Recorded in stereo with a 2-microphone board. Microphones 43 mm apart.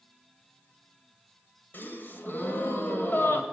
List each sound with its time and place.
1.7 s a gasp: 50° left (ahead or behind), 1.7 m